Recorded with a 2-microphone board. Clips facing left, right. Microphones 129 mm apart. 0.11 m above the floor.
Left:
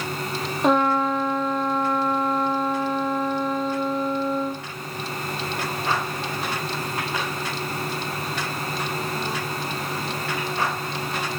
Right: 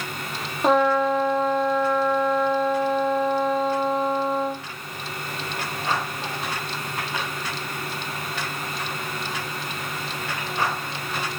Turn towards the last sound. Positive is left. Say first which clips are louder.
# right 1 dB
turn(degrees=0)  # may be behind; listen again after turning